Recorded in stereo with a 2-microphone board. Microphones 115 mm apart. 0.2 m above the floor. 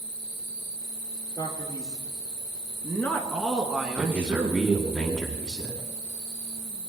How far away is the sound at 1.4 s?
About 3.5 m.